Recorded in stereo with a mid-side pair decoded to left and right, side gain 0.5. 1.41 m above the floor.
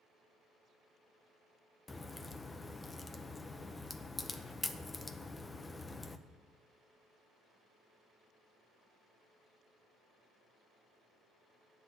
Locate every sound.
1.9 s a crack: 20° left, 0.7 m